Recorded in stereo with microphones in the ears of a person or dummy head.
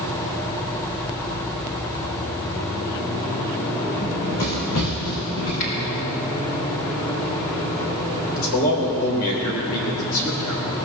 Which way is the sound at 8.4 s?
60° left (ahead or behind).